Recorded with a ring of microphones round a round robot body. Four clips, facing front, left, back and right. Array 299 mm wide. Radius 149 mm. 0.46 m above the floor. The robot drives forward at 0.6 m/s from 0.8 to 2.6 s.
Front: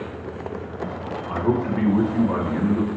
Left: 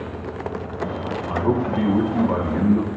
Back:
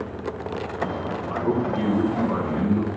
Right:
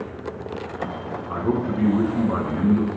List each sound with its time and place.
1.3 s a man speaking: 70° left, 4.5 m; by 2.9 s 80° left, 4 m